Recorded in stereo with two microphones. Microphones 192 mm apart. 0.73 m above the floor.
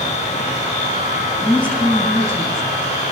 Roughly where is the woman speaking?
Centre.